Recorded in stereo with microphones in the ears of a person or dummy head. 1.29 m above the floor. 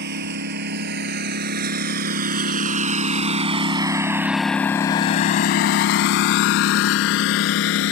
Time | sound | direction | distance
0.0 | a lawn mower | 55° right (ahead or behind) | ?